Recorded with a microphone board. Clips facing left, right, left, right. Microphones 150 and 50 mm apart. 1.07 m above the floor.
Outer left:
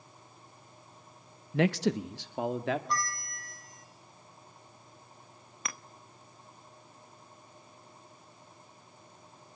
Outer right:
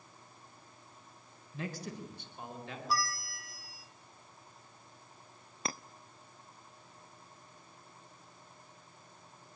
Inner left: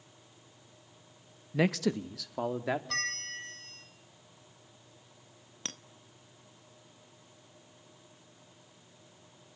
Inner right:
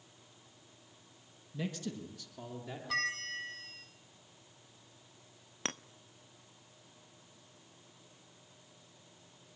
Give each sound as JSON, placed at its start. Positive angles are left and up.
{"t": 1.5, "sound": "a man speaking", "side_deg": 65, "distance_m": 0.9}
{"t": 2.9, "sound": "a bell", "side_deg": -5, "distance_m": 2.5}
{"t": 5.7, "sound": "a clink", "side_deg": -30, "distance_m": 0.7}